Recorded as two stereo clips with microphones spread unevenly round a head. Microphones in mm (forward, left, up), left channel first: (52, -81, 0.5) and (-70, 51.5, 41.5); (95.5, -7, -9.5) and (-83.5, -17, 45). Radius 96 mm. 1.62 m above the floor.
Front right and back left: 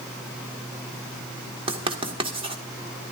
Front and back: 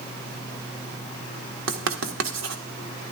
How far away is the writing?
About 1.4 m.